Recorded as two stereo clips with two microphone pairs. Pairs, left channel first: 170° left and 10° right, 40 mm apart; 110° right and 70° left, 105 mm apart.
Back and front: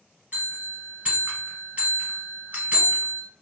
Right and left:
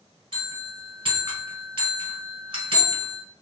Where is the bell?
40° left, 1.2 m.